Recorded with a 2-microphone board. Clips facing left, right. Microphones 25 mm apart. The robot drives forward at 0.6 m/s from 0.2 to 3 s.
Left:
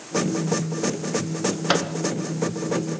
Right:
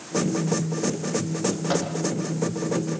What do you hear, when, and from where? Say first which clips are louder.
1.7 s a microwave: left 5 dB; 65° left (ahead or behind), 1.9 m